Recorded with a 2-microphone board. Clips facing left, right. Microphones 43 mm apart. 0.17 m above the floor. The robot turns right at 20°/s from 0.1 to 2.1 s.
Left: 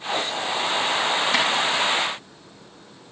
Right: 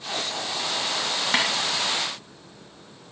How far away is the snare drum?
About 2.5 m.